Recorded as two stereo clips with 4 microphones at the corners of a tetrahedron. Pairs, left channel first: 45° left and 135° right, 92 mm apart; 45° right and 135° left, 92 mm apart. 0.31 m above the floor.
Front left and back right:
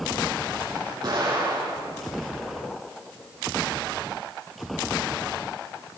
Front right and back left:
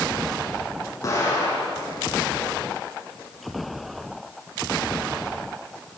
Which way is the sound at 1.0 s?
100° right.